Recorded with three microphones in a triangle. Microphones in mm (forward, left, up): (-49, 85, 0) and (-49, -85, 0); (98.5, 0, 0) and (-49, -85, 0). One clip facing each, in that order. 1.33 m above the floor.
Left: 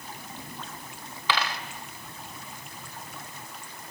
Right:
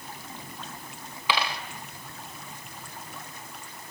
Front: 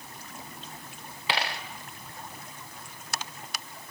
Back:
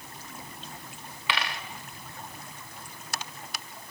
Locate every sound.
1.3 s a dropped coin: 15° right, 1.7 m